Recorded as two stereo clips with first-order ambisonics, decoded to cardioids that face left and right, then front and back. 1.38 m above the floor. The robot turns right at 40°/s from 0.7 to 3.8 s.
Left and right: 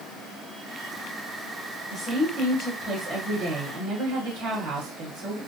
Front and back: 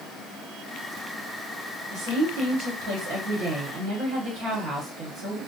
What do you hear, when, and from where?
1.9 s a woman speaking: 150° left, 1.1 m; by 5.4 s 135° right, 1.1 m